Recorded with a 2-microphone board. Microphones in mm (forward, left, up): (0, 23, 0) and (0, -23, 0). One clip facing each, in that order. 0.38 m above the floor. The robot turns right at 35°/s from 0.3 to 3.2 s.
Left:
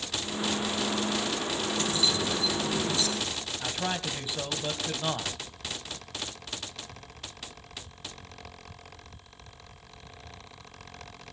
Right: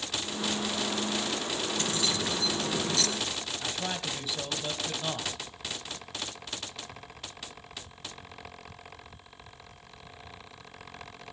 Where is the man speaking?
15° left (ahead or behind), 2 m.